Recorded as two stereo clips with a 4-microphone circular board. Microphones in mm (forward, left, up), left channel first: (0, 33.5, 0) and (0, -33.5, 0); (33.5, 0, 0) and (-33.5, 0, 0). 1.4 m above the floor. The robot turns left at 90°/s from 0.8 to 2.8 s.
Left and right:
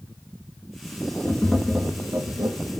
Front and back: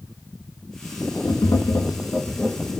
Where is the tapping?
30° left, 1.6 m; by 2.5 s 85° right, 1.6 m.